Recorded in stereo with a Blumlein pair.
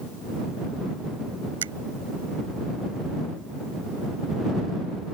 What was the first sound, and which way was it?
A finger snap, 65° right.